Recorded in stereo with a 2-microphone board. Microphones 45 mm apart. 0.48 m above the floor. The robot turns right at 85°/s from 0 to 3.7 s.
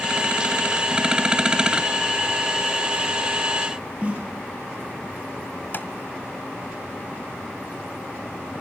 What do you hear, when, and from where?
4.0 s a snare drum: 25° right (ahead or behind), 5.5 m
5.7 s tapping: 40° left (ahead or behind), 1.7 m